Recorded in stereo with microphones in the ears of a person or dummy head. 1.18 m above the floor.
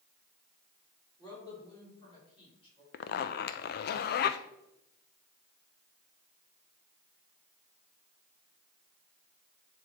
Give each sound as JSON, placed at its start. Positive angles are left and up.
{"t": 1.2, "sound": "a woman speaking", "side_deg": 20, "distance_m": 3.5}
{"t": 2.9, "sound": "a zipper", "side_deg": 55, "distance_m": 0.5}